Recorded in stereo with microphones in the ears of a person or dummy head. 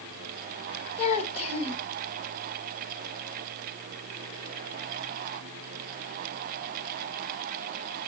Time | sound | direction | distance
1.0 | a child speaking | 40° left (ahead or behind) | 1.5 m